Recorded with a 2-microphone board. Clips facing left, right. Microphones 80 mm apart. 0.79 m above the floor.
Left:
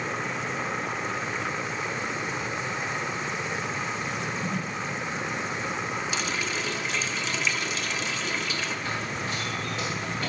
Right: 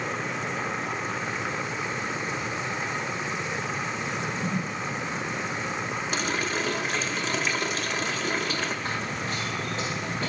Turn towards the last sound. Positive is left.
turn(degrees=-30)  # may be behind; listen again after turning